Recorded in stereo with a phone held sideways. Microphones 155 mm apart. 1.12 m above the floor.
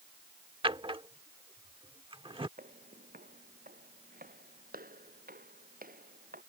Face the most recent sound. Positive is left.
turn(degrees=-70)  # may be behind; listen again after turning